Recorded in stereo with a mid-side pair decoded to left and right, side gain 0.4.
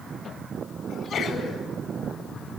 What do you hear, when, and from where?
0.9 s a sneeze: 60° left, 9 m